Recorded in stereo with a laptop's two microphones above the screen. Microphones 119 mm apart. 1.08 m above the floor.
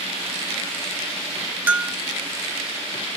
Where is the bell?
15° right (ahead or behind), 1.0 m.